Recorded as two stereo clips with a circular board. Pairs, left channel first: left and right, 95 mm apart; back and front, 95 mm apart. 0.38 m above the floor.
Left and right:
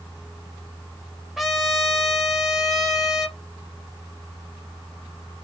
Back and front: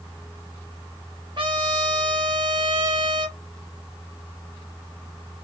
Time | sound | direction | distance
1.4 | a trumpet | 5° right | 0.6 m